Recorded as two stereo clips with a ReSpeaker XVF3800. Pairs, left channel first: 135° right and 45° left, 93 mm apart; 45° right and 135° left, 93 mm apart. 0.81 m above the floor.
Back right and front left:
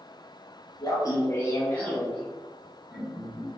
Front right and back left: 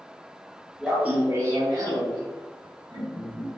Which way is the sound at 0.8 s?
145° right.